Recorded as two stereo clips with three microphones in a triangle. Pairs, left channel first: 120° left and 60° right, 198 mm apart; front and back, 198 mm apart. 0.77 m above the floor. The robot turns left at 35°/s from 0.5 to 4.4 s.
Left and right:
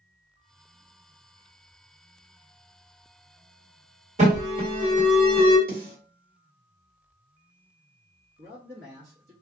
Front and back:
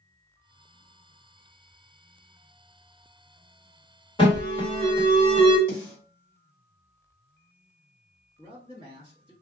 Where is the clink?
No clink in this recording.